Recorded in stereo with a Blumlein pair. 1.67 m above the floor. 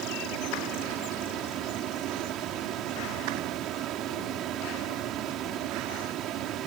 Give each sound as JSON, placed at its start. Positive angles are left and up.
{"t": 0.0, "sound": "a fan", "azimuth_deg": -35}